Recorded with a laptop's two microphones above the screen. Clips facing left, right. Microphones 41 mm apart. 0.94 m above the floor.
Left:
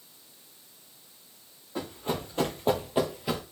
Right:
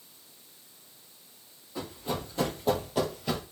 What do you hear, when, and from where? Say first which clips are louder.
1.8 s running footsteps: left 2 dB; 55° left (ahead or behind), 1.7 m; by 3.4 s 10° left (ahead or behind), 1.0 m